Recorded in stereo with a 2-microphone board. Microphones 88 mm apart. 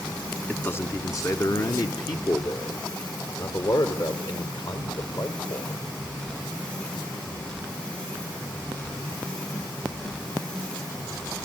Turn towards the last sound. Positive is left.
turn(degrees=70)  # may be behind; listen again after turning